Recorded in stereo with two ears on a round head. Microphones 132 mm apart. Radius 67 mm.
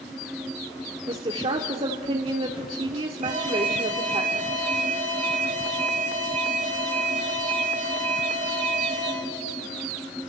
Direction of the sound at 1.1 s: 35° right (ahead or behind).